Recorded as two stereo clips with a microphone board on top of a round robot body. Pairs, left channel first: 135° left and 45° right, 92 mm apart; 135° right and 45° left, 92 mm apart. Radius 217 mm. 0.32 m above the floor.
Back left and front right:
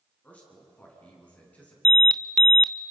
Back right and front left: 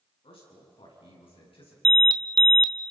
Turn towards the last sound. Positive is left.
turn(degrees=55)